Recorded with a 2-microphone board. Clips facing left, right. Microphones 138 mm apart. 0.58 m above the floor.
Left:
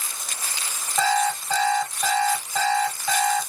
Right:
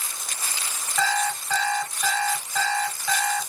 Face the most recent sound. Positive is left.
turn(degrees=25)  # may be behind; listen again after turning